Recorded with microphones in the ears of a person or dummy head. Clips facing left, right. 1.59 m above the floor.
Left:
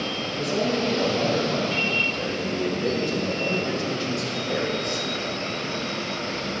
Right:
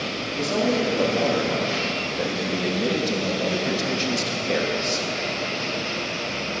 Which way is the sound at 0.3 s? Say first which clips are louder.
Right 2 dB; 80° right.